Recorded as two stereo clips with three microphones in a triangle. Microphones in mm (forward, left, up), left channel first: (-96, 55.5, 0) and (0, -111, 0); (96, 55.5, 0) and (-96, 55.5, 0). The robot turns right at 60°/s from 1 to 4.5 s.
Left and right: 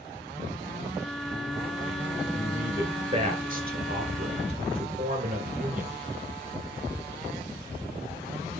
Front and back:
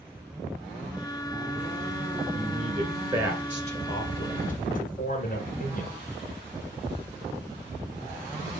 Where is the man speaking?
150° right, 1.7 m; by 5.9 s 25° right, 1.7 m.